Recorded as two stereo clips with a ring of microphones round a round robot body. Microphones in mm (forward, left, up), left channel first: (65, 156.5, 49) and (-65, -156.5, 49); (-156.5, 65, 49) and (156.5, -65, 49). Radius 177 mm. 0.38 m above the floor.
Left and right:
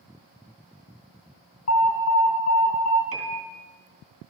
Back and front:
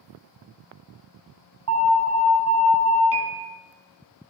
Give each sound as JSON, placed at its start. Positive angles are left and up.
{"t": 1.7, "sound": "an alarm", "azimuth_deg": 20, "distance_m": 6.0}
{"t": 3.1, "sound": "a piano", "azimuth_deg": -60, "distance_m": 2.5}